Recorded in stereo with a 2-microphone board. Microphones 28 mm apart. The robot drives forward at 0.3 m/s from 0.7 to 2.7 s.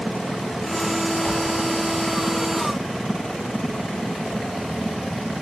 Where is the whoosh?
55° left (ahead or behind), 4.5 m.